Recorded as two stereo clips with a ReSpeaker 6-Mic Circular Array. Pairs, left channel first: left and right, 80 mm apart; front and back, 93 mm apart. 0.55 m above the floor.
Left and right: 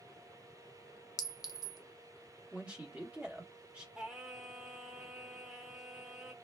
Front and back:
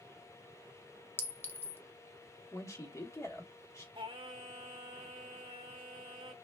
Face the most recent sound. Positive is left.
turn(degrees=-170)